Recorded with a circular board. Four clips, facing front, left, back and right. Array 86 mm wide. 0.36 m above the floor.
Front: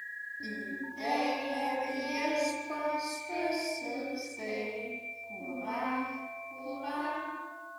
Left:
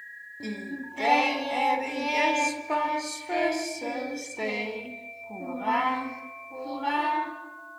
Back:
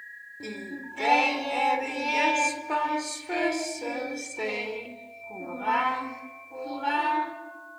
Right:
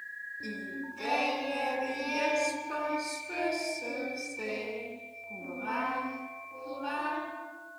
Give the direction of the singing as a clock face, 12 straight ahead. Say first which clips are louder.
Left 5 dB, back 3 dB; 8 o'clock.